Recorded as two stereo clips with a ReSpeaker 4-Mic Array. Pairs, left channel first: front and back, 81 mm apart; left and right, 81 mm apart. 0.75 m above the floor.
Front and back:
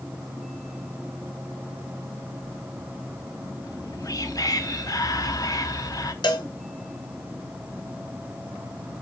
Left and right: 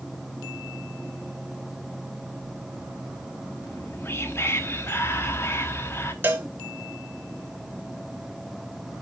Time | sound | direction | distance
3.6 | whispering | 35° left | 1.0 m
6.2 | a cowbell | 25° right | 0.9 m